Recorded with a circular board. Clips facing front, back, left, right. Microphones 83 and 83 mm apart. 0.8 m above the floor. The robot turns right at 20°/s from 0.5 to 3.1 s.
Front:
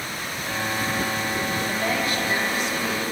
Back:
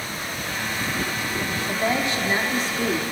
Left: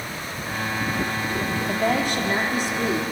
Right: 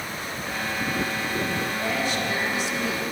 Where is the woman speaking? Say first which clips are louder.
Back 1 dB, left 4 dB; 110° left, 2 m; by 3.0 s 135° left, 2 m.